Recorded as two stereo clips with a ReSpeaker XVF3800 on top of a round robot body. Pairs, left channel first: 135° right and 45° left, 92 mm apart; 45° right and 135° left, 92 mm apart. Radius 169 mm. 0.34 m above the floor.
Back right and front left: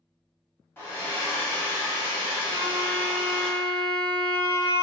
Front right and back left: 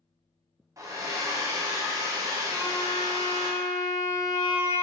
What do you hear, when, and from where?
0.8 s a hair dryer: 165° left, 1.1 m
2.5 s a violin: 80° left, 0.6 m